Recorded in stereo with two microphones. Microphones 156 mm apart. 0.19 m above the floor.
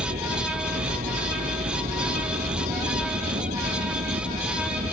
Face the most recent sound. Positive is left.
turn(degrees=-65)  # may be behind; listen again after turning